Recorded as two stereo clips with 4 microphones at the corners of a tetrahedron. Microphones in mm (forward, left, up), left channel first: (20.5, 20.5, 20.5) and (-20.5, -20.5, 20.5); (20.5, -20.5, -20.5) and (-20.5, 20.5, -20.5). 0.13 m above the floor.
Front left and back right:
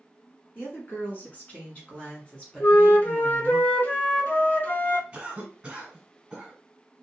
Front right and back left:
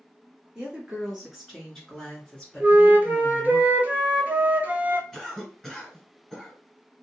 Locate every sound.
0.6 s a woman speaking: 65° left, 1.6 m; by 3.6 s 40° right, 1.5 m
2.6 s a flute: 90° left, 0.8 m
5.1 s a cough: 110° right, 1.4 m